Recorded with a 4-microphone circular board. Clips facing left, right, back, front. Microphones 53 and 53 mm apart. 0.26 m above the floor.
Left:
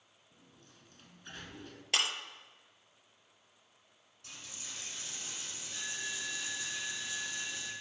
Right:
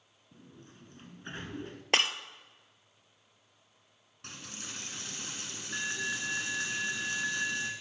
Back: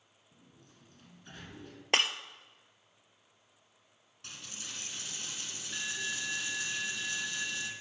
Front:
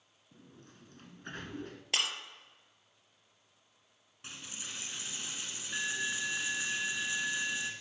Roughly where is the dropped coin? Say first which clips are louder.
Right 5 dB, front 1 dB; right.